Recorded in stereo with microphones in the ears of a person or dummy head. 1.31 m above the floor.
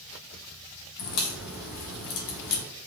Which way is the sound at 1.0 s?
70° left (ahead or behind).